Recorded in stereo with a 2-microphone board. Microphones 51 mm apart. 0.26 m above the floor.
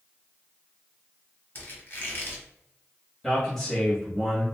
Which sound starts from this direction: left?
A squeak, at 1.6 s.